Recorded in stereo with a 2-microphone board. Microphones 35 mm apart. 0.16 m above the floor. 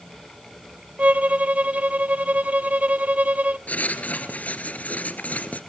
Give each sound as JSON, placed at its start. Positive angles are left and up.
{"t": 1.0, "sound": "a violin", "side_deg": -45, "distance_m": 0.6}
{"t": 3.7, "sound": "writing", "side_deg": 50, "distance_m": 2.0}